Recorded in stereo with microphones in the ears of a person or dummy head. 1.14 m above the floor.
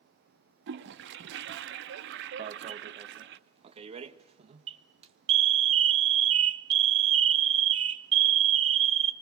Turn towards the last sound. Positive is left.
turn(degrees=-30)  # may be behind; listen again after turning